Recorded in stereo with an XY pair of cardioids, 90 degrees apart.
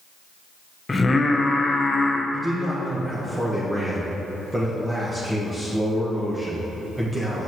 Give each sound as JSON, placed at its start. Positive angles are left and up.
{"t": 0.9, "sound": "singing", "azimuth_deg": 30, "distance_m": 0.7}
{"t": 2.3, "sound": "a man speaking", "azimuth_deg": -15, "distance_m": 1.2}